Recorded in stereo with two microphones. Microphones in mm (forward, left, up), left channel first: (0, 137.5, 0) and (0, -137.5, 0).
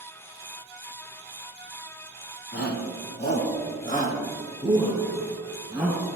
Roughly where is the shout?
Left.